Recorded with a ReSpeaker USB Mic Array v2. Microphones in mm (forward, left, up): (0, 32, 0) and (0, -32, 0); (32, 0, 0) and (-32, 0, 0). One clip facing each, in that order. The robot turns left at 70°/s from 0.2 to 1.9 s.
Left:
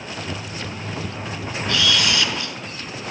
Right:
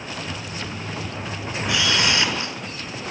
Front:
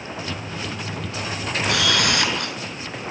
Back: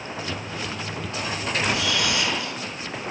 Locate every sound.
1.7 s a camera shutter: 10° right, 5.5 m; by 2.6 s 25° right, 5.5 m